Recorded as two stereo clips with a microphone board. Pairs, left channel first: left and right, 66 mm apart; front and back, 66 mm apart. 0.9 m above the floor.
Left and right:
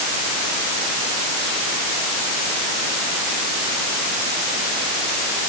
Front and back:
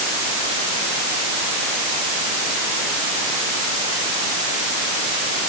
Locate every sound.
Only background noise.